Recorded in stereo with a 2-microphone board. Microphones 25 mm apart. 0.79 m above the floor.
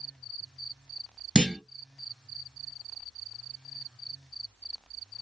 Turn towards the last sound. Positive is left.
turn(degrees=-40)  # may be behind; listen again after turning